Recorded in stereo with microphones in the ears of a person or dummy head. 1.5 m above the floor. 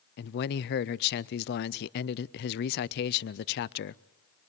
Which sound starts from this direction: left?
A man speaking, at 0.2 s.